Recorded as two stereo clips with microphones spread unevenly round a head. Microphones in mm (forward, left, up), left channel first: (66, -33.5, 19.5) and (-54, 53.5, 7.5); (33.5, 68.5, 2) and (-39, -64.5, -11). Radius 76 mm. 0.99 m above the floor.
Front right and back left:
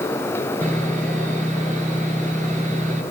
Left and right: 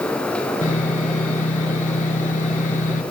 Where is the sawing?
105° left, 4 m.